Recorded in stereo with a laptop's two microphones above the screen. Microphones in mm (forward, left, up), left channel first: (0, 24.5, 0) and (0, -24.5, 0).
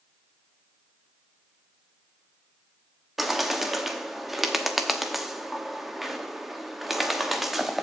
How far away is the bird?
About 1.0 m.